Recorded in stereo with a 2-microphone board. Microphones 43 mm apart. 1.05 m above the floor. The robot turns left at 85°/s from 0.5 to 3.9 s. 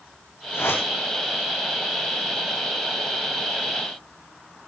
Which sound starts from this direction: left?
A whoosh, at 0.5 s.